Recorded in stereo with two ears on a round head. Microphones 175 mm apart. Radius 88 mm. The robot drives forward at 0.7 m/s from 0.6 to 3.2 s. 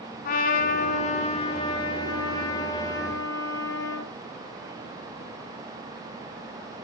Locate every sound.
0.2 s a trumpet: 50° left (ahead or behind), 1.2 m; by 4.1 s 20° left (ahead or behind), 2.5 m